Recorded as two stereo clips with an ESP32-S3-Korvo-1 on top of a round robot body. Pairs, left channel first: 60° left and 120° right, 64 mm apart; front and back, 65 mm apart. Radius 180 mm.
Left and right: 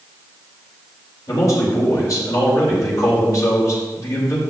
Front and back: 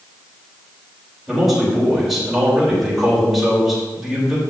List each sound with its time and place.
1.3 s a man speaking: 95° left, 3 m